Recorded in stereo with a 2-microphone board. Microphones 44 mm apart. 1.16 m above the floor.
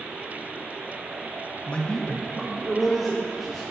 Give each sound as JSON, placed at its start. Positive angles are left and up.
{"t": 1.7, "sound": "a man speaking", "side_deg": 30, "distance_m": 0.8}